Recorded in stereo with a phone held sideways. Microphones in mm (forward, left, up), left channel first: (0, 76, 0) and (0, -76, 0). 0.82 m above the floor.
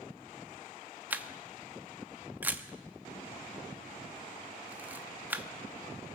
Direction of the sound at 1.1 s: 10° right (ahead or behind).